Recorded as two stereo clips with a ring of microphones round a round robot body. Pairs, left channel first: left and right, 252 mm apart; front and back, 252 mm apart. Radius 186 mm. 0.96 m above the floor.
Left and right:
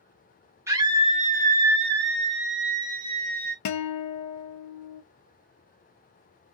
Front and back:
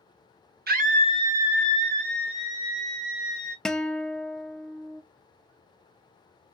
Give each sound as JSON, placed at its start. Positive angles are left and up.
{"t": 0.7, "sound": "a scream", "azimuth_deg": -165, "distance_m": 0.8}
{"t": 3.6, "sound": "a guitar", "azimuth_deg": 90, "distance_m": 0.6}